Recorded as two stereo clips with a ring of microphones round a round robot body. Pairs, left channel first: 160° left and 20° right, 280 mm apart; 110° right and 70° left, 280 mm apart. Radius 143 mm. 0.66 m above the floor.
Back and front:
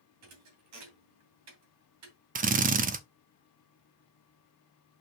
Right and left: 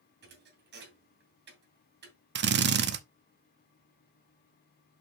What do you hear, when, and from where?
0.2 s a thud: 10° left, 2.5 m
2.4 s a drill: 30° left, 0.8 m